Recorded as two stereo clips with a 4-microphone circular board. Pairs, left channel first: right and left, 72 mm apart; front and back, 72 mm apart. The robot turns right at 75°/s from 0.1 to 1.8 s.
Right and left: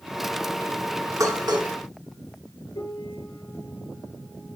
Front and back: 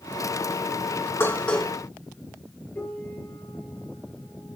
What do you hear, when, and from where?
1.2 s dishes clattering: 55° left, 2.5 m; by 1.7 s 90° left, 2.5 m
2.8 s a piano: 70° right, 6 m